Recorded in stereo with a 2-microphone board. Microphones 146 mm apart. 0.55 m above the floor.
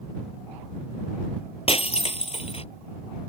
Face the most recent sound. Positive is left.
turn(degrees=40)  # may be behind; listen again after turning